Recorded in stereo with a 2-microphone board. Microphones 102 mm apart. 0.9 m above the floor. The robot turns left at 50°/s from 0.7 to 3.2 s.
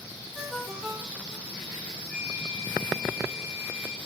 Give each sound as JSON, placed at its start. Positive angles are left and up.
{"t": 0.3, "sound": "a ringtone", "azimuth_deg": -5, "distance_m": 1.7}
{"t": 2.1, "sound": "a flute", "azimuth_deg": 25, "distance_m": 1.4}